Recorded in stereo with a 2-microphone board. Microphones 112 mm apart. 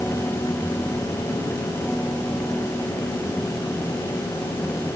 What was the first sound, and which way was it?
Only background noise.